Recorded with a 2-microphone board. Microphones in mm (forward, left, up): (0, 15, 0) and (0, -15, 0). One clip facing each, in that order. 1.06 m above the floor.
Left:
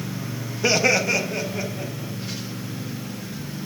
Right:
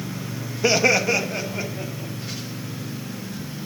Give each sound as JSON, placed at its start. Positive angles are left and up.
{"t": 0.6, "sound": "laughter", "side_deg": 0, "distance_m": 0.7}